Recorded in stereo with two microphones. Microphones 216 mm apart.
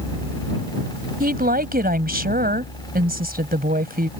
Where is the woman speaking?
45° right (ahead or behind).